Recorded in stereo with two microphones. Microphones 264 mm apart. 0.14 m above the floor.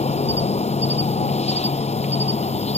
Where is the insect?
25° left (ahead or behind).